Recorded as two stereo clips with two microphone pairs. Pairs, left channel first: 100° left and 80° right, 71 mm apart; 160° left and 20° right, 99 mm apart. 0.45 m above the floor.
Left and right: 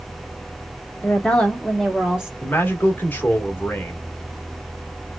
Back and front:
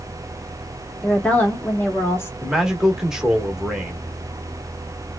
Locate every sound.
1.0 s a woman speaking: 85° left, 1.0 m; by 2.3 s 150° right, 1.2 m
2.4 s a man speaking: 60° left, 1.0 m